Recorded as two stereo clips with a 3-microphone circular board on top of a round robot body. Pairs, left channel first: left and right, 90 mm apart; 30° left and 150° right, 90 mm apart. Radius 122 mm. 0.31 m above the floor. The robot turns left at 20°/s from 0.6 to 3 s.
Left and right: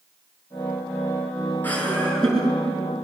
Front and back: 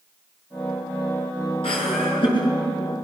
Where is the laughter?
20° left, 7 m; by 2.6 s straight ahead, 7 m.